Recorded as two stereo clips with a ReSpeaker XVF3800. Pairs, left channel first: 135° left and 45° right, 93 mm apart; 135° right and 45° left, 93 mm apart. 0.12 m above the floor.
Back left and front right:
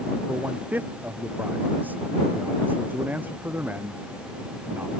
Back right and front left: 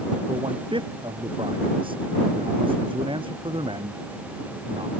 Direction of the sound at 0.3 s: 25° left.